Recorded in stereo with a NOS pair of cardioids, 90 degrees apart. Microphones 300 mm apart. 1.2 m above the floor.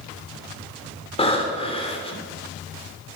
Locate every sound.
1.2 s breathing: 20° left, 3 m